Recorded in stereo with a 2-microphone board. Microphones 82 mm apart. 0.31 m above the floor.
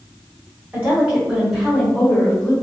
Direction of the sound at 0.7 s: 20° right (ahead or behind).